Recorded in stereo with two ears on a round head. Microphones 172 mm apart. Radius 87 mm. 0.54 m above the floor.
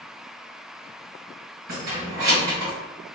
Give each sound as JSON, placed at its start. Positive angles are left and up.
{"t": 1.7, "sound": "keys jangling", "side_deg": -75, "distance_m": 1.9}